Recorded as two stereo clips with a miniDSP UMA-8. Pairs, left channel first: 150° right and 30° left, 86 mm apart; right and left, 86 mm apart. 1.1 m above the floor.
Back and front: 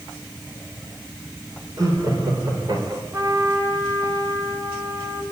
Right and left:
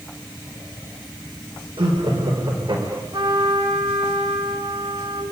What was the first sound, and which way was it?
Laughter, 75° left.